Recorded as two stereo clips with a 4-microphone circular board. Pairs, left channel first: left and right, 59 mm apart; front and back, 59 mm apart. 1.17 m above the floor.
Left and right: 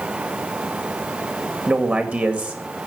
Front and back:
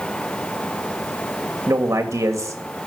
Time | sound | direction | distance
1.7 | a man speaking | 155° right | 2.5 m